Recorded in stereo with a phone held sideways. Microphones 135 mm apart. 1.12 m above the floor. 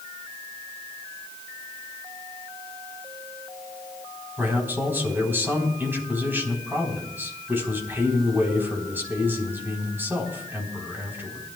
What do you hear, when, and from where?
4.4 s a man speaking: 15° right (ahead or behind), 4 m